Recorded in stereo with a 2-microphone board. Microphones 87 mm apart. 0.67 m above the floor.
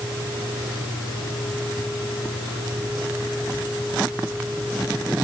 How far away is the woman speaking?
No woman speaking in this recording.